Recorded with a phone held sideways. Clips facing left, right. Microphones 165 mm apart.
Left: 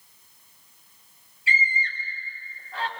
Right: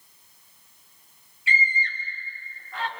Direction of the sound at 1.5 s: 40° left (ahead or behind).